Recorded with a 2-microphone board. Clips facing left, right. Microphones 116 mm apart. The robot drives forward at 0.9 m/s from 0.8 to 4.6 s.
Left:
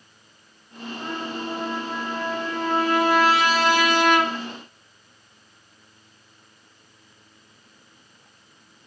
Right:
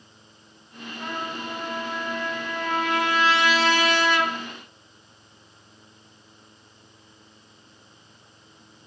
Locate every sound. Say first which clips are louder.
1.0 s a trumpet: left 1 dB; 25° left (ahead or behind), 5 m; by 4.3 s 50° left (ahead or behind), 2.5 m